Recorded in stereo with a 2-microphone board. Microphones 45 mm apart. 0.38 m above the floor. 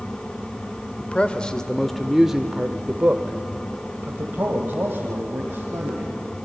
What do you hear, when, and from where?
1.0 s a man speaking: 30° left (ahead or behind), 1.1 m; by 6.2 s 55° right (ahead or behind), 2.5 m